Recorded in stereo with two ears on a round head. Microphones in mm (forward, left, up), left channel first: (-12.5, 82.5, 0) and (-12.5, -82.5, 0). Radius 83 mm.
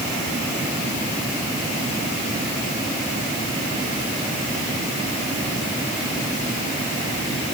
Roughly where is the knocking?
No knocking in this recording.